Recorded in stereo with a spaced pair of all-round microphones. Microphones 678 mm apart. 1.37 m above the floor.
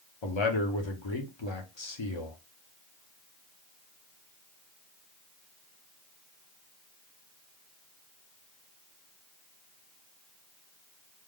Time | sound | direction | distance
0.2 | a man speaking | 45° left (ahead or behind) | 0.9 m